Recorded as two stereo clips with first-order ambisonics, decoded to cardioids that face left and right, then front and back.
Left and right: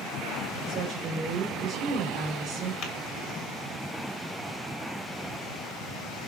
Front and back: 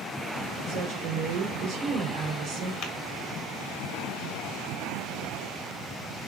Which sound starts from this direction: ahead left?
Tapping, at 2.8 s.